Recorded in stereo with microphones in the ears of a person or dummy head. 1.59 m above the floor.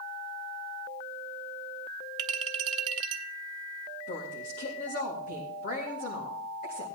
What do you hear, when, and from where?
2.2 s a clink: 20° right (ahead or behind), 0.9 m
4.1 s a woman speaking: 45° left (ahead or behind), 1.9 m